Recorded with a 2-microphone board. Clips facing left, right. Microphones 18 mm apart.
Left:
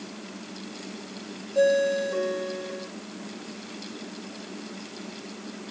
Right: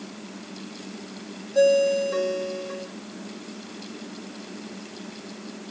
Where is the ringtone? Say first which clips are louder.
Right 3 dB; 25° right (ahead or behind), 3.5 m.